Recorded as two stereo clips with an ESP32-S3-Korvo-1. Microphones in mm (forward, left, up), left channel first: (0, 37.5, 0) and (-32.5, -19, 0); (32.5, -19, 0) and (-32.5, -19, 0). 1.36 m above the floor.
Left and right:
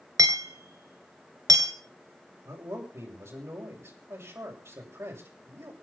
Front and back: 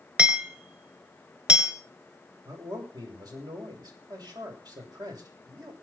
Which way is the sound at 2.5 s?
165° right.